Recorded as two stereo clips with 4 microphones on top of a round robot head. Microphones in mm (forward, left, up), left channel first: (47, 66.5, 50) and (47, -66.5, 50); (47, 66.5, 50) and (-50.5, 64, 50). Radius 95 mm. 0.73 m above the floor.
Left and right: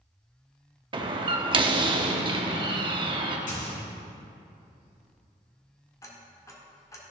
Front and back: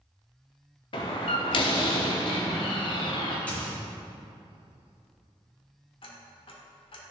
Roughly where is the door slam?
Ahead right.